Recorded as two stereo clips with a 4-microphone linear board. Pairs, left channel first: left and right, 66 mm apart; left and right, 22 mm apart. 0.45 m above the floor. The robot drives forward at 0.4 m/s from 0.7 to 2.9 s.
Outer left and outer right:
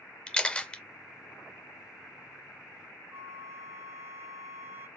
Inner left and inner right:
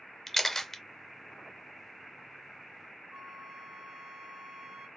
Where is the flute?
45° right (ahead or behind), 2 m.